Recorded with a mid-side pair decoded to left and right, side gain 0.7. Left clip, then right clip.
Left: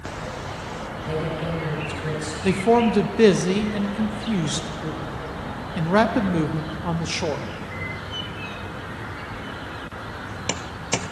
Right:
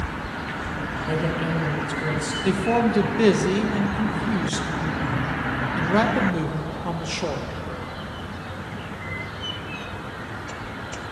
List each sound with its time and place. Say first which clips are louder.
1.1 s a woman speaking: right 1 dB; 15° right, 3.5 m
2.4 s a man speaking: left 4 dB; 15° left, 0.6 m